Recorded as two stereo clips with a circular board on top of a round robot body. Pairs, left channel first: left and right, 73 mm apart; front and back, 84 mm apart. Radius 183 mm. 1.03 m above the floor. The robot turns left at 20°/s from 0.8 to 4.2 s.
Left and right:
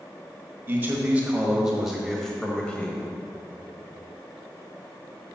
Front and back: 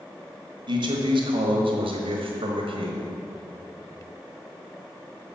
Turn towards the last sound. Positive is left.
turn(degrees=135)